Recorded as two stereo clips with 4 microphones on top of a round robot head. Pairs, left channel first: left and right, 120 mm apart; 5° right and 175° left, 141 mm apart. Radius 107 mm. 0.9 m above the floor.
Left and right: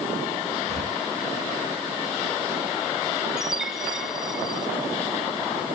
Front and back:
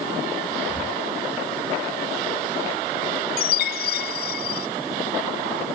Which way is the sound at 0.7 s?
105° right.